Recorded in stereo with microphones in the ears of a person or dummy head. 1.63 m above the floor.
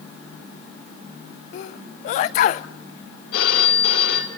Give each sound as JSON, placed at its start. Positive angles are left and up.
{"t": 1.5, "sound": "a sneeze", "side_deg": 40, "distance_m": 0.8}
{"t": 3.3, "sound": "a phone ringing", "side_deg": 80, "distance_m": 3.5}